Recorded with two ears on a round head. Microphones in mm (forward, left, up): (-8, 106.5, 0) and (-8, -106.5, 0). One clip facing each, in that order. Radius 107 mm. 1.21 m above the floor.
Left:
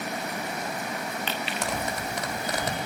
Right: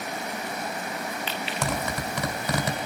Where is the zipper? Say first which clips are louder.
Right 3 dB; 65° right (ahead or behind), 3 m.